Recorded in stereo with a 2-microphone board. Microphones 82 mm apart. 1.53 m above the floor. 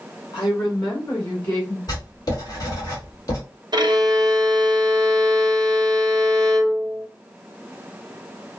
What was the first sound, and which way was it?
A woman speaking, 70° left (ahead or behind).